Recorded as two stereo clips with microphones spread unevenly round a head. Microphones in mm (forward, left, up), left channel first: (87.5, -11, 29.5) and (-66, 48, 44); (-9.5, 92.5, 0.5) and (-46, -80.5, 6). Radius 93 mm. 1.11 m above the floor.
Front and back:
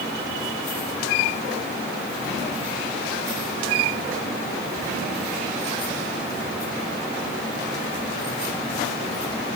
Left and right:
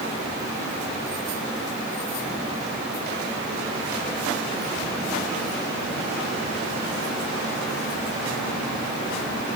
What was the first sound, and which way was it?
Only background noise.